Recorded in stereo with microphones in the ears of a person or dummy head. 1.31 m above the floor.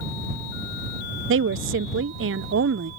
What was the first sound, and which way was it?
A woman speaking, 60° right (ahead or behind).